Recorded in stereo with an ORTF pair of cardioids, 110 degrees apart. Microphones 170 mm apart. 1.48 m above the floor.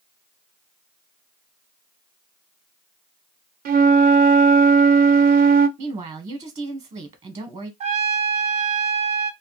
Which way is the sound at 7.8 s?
40° right.